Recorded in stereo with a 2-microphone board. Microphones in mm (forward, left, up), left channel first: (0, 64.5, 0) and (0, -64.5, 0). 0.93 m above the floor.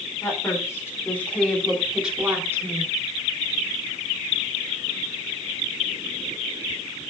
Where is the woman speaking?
25° left (ahead or behind), 3.5 m; by 2.9 s 25° right (ahead or behind), 2.5 m.